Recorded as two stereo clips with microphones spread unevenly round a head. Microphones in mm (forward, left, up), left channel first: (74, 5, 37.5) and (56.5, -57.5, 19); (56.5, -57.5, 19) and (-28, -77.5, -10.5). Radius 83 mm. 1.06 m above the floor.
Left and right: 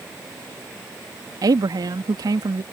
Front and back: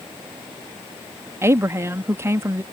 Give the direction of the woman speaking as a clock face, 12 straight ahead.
4 o'clock.